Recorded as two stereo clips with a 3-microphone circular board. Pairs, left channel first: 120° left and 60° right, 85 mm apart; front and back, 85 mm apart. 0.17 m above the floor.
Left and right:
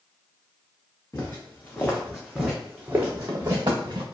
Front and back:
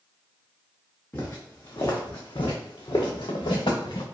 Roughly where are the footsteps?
Ahead left.